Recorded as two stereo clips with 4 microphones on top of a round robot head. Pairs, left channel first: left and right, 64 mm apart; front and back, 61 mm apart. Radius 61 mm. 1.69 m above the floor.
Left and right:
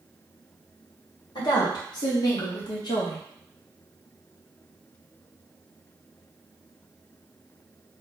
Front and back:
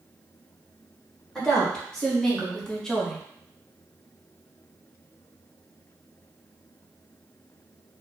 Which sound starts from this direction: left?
A woman speaking, at 1.4 s.